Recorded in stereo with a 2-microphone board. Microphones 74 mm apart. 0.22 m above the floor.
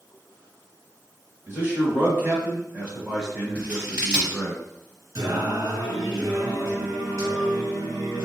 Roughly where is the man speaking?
Right.